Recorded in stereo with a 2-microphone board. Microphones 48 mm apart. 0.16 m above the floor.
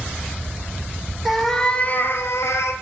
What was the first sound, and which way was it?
A cat meowing, 5° right (ahead or behind).